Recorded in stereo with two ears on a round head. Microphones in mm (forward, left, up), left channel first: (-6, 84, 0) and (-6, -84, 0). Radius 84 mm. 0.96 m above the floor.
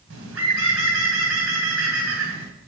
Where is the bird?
85° right, 3 m.